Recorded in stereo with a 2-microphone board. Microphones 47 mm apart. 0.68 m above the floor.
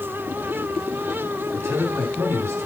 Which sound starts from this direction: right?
A man speaking, at 1.5 s.